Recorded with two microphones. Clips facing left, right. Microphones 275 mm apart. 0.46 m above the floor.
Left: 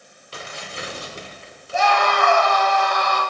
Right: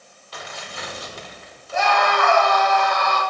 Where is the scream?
70° right (ahead or behind), 2.5 m.